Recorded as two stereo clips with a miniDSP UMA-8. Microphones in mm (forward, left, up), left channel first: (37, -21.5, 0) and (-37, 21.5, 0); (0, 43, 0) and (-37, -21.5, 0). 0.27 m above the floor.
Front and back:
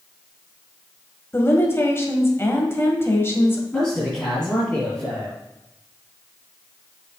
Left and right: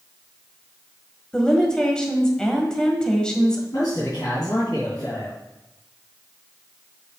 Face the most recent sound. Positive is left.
turn(degrees=50)